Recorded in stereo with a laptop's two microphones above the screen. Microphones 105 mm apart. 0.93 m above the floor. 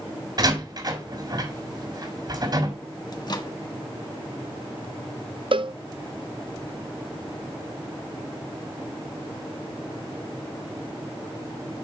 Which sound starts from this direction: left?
A microwave, at 3.1 s.